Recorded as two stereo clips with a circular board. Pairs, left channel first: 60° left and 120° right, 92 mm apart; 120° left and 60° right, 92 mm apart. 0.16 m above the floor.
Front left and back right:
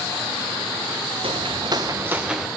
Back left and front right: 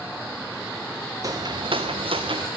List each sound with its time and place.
1.2 s footsteps: 110° right, 1.1 m; by 2.5 s 30° right, 1.1 m